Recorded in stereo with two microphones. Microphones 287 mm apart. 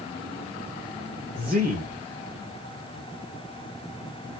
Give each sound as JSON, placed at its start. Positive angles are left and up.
{"t": 1.4, "sound": "a man speaking", "side_deg": -25, "distance_m": 2.5}